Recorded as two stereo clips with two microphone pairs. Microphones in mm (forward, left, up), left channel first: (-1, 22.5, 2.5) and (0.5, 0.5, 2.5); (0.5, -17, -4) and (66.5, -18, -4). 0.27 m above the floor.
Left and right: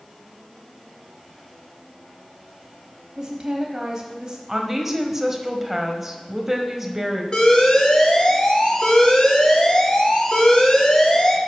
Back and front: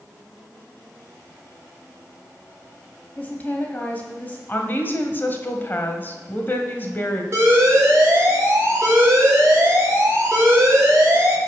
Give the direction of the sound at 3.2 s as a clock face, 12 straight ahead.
4 o'clock.